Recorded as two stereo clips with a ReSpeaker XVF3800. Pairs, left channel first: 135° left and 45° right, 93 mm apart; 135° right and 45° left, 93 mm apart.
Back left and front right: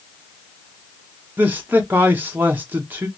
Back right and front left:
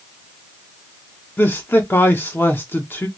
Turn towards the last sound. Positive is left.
turn(degrees=-95)